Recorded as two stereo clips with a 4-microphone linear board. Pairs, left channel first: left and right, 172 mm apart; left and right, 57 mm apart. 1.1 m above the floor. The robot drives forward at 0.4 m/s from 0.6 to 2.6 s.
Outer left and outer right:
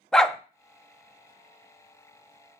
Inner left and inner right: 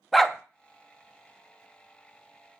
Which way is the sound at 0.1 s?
5° left (ahead or behind).